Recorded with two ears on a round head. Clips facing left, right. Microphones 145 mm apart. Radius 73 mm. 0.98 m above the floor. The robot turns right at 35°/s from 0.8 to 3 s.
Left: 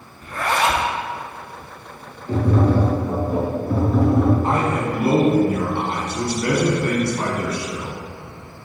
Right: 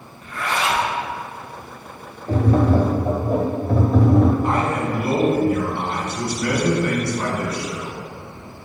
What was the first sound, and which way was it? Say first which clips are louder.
A zipper: left 3 dB; 35° left (ahead or behind).